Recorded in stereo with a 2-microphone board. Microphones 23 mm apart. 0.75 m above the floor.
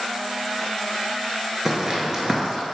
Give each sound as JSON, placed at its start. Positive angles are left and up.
{"t": 1.6, "sound": "footsteps", "side_deg": -20, "distance_m": 0.7}